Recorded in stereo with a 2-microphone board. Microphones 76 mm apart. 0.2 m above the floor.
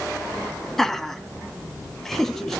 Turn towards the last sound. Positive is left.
turn(degrees=5)  # may be behind; listen again after turning